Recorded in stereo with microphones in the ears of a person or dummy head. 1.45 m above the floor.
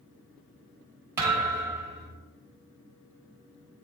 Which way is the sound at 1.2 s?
10° right (ahead or behind).